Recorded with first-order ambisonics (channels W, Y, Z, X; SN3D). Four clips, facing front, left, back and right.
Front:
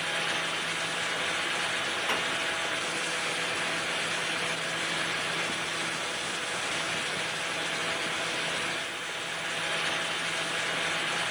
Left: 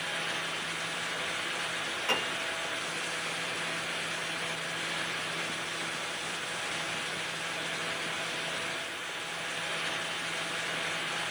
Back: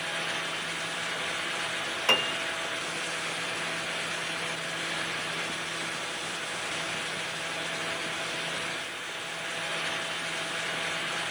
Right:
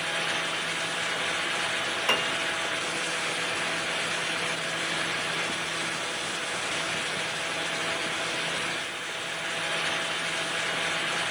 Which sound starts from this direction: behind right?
A piano, at 2.1 s.